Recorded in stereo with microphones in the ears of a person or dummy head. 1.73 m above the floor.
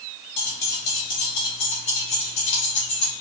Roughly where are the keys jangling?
Left.